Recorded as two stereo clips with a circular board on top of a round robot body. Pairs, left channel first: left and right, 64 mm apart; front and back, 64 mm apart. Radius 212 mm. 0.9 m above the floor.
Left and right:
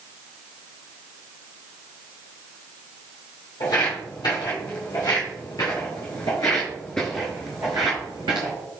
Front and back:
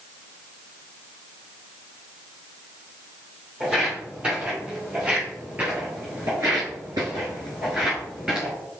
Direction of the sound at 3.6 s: 105° left.